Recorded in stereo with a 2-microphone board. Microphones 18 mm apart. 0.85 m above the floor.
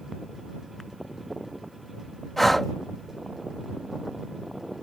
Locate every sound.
2.4 s breathing: 15° left (ahead or behind)